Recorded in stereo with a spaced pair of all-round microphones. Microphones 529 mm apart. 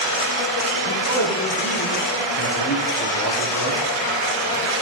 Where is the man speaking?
40° left (ahead or behind), 3.5 m.